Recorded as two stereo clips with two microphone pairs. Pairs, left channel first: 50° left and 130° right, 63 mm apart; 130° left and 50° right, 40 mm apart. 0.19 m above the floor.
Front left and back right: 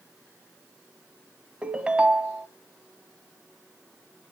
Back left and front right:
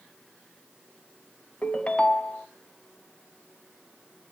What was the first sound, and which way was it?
A ringtone, 175° left.